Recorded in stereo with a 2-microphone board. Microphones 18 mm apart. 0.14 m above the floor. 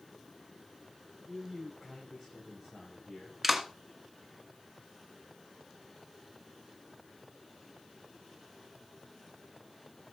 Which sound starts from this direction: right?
A man speaking, at 1.3 s.